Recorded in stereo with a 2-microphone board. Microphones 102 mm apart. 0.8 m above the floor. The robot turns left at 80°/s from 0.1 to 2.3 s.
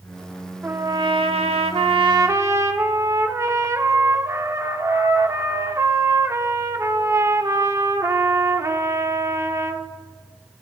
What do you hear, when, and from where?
0.6 s a trumpet: 15° right, 0.6 m; by 9.9 s 150° right, 0.6 m